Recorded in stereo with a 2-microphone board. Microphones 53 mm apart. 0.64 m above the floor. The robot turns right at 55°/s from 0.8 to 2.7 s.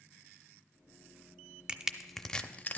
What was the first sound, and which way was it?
Crushing, 20° right (ahead or behind).